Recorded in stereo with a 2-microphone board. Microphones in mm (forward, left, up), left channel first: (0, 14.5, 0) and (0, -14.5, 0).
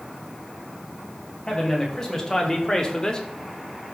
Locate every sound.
1.5 s a man speaking: 25° left (ahead or behind), 3 m